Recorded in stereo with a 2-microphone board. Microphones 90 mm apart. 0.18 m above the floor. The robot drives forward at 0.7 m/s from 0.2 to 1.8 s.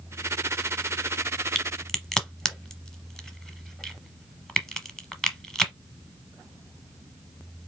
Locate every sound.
1.6 s a crack: 5° left (ahead or behind), 0.9 m